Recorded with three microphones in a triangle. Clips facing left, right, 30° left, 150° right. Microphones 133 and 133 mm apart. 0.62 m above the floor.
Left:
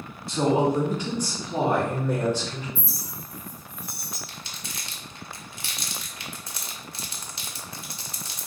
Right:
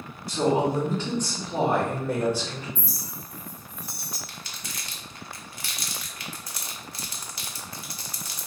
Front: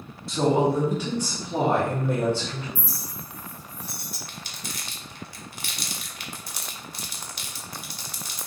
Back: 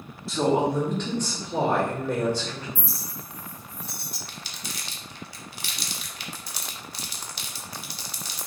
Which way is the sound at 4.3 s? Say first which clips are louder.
Left 1 dB, front 1 dB; 35° left.